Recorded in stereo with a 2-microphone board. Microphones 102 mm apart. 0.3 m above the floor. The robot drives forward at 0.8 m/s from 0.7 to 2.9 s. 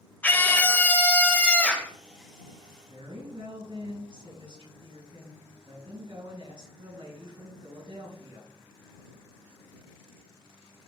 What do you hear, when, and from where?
0.2 s a scream: 20° left (ahead or behind), 0.9 m; by 1.9 s 10° left (ahead or behind), 1.4 m
2.8 s a woman speaking: 55° right (ahead or behind), 3.5 m